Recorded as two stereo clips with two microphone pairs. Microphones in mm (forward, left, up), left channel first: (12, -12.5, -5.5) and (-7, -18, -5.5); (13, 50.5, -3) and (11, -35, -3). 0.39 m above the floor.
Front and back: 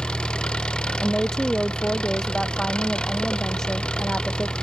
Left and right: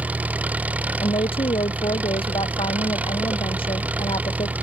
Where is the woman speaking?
90° left.